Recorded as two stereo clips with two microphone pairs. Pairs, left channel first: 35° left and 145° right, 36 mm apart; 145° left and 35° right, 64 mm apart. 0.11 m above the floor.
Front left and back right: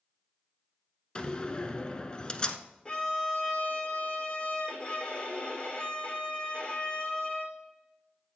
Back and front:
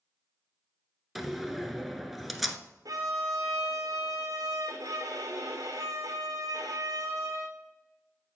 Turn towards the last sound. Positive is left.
turn(degrees=-30)